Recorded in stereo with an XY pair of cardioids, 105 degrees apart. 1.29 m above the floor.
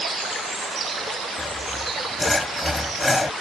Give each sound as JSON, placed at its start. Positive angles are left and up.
{"t": 1.4, "sound": "sawing", "azimuth_deg": 10}